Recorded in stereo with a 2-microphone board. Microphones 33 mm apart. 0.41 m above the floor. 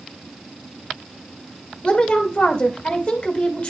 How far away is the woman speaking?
About 1.7 m.